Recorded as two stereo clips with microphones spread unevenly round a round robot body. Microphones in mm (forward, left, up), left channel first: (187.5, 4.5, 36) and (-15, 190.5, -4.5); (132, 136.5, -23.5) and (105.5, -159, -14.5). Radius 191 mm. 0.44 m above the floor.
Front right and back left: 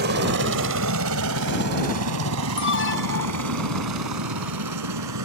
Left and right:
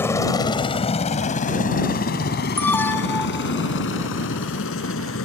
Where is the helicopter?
165° left; by 5.3 s 140° left.